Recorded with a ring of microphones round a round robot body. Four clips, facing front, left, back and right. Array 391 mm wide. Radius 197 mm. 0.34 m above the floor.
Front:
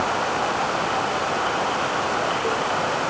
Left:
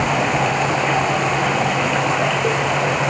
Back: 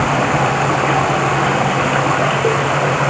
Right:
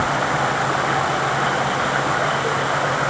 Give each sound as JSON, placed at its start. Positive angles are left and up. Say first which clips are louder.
{"t": 0.0, "sound": "running water", "louder": "left 2 dB, back 7 dB", "azimuth_deg": 170}